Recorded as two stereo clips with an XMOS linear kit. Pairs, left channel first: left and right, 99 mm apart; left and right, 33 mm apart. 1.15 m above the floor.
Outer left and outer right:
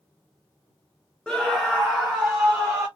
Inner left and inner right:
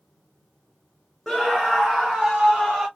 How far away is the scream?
About 0.7 m.